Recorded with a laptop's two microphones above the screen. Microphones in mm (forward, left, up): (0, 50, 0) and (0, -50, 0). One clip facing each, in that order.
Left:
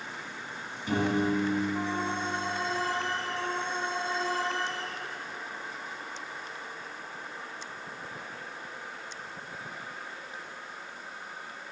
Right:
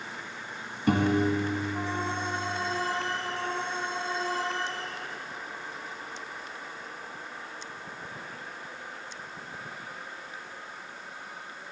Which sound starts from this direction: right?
A piano, at 0.9 s.